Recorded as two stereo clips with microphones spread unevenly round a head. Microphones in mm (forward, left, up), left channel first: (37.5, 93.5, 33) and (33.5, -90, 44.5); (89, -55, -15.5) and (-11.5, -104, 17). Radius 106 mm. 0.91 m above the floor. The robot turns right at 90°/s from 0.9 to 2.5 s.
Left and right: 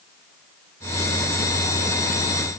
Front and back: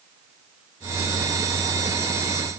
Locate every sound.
Only background noise.